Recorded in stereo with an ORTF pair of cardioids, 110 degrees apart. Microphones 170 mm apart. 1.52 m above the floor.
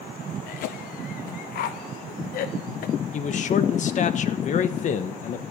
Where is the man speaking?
45° left, 1.4 m.